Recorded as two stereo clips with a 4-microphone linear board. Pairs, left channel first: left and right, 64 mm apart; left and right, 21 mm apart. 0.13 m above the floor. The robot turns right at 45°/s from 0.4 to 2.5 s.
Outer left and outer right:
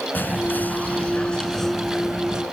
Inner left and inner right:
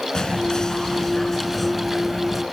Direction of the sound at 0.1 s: 115° left.